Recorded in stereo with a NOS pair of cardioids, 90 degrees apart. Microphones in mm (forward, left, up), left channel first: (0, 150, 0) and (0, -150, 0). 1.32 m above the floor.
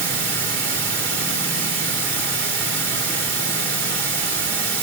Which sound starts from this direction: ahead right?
Running water, at 0.0 s.